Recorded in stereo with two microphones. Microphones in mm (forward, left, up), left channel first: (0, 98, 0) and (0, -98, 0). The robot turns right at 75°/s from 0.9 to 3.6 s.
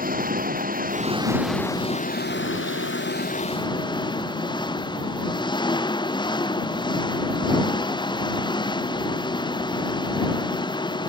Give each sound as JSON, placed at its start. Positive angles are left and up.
{"t": 0.0, "sound": "an engine running", "azimuth_deg": -45}